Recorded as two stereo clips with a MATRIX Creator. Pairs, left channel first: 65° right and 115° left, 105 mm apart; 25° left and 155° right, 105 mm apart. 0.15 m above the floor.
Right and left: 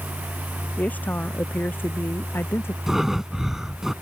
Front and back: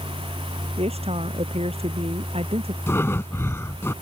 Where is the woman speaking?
145° right; by 2.8 s 135° right.